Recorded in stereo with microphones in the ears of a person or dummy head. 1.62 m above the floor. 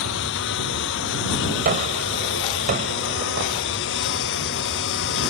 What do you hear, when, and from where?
0.0 s a lawn mower: 70° left (ahead or behind); by 5.3 s 65° left (ahead or behind)
1.6 s a gunshot: 45° right (ahead or behind)